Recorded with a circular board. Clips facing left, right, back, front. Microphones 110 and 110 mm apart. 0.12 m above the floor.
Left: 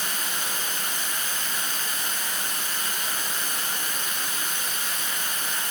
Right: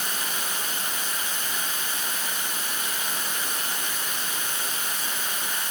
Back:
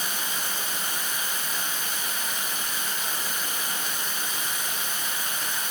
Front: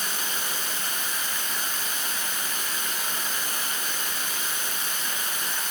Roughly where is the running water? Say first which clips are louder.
Even, even; behind right.